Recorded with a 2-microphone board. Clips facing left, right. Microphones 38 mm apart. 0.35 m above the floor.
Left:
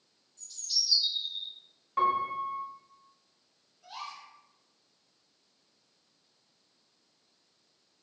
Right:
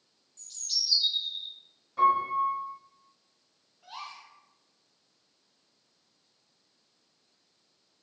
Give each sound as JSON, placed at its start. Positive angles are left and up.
{"t": 0.4, "sound": "a bird", "side_deg": -55, "distance_m": 1.1}
{"t": 2.0, "sound": "a piano", "side_deg": 65, "distance_m": 1.2}
{"t": 3.8, "sound": "a gasp", "side_deg": -30, "distance_m": 1.5}